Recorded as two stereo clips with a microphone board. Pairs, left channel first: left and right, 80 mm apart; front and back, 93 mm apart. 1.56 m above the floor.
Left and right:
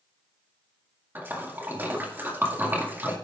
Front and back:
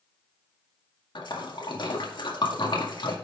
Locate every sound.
1.1 s a splash: 25° right, 2 m